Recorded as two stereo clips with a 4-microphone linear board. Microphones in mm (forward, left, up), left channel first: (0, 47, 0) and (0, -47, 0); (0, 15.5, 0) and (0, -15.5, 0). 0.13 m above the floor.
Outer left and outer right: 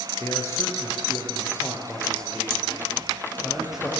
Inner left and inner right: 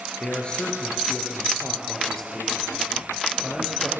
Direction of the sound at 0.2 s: 35° left (ahead or behind).